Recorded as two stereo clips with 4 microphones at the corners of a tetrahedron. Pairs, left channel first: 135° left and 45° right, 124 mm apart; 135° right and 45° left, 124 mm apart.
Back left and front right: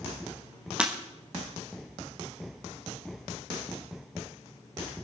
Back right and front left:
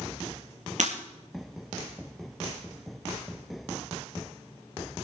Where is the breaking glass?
35° left, 4 m.